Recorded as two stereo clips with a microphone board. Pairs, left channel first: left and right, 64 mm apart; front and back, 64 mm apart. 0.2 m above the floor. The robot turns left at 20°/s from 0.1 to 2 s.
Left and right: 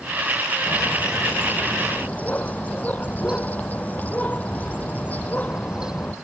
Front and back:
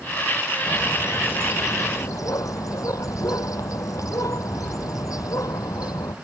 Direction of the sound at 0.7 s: 55° left.